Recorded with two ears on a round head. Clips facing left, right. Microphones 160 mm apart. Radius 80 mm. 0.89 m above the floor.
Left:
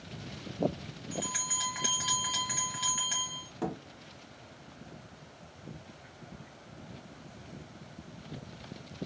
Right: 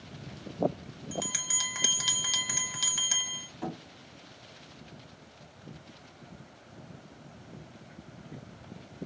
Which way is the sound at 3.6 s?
60° left (ahead or behind).